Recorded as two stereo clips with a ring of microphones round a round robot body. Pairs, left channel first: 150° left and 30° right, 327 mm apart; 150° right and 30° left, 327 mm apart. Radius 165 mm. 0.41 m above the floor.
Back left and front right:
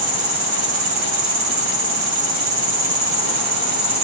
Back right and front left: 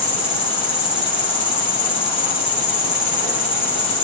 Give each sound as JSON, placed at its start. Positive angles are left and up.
{"t": 0.0, "sound": "an insect", "azimuth_deg": -65, "distance_m": 3.0}